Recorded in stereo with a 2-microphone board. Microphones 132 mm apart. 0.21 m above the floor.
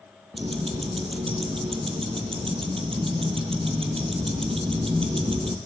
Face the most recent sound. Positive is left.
turn(degrees=-45)  # may be behind; listen again after turning